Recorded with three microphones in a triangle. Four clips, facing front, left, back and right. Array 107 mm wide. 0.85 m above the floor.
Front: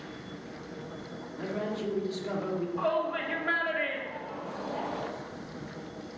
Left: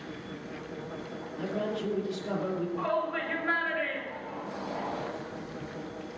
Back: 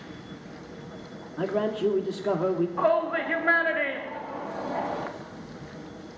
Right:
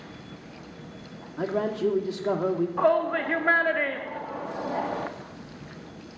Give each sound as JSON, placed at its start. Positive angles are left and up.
{"t": 1.4, "sound": "a man speaking", "azimuth_deg": -135, "distance_m": 1.7}
{"t": 2.8, "sound": "a shout", "azimuth_deg": -115, "distance_m": 1.8}